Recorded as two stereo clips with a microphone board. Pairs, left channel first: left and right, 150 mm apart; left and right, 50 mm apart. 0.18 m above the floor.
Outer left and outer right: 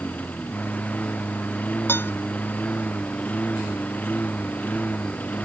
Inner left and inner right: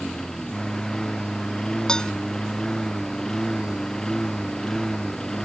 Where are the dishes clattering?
15° left (ahead or behind).